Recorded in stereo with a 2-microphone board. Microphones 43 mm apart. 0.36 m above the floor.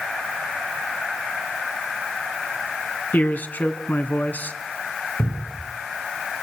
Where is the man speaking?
45° left (ahead or behind), 3 m.